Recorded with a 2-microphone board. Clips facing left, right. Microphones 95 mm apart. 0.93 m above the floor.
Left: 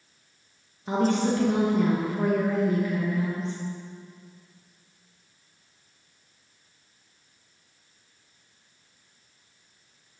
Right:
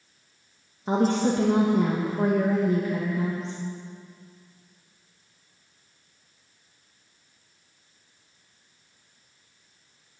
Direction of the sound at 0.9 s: 30° right (ahead or behind).